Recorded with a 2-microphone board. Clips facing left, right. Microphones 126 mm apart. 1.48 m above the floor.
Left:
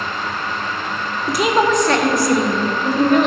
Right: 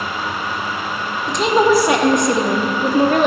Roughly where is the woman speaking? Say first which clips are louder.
Right 2 dB; centre.